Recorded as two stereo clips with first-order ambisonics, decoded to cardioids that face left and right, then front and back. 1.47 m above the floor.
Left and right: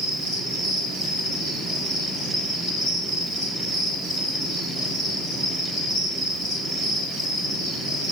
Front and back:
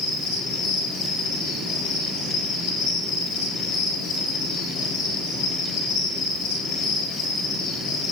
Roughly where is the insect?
Ahead left.